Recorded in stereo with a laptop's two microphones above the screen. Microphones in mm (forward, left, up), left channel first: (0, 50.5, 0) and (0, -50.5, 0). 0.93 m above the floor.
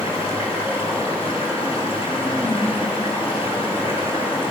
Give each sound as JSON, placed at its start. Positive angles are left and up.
{"t": 0.0, "sound": "running water", "side_deg": 75, "distance_m": 6.0}